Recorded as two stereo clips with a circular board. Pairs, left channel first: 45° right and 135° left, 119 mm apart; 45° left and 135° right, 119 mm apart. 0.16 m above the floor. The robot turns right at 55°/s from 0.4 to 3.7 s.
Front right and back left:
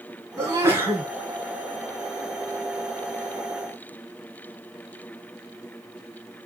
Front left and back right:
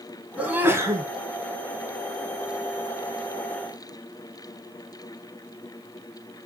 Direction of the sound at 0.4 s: 160° left.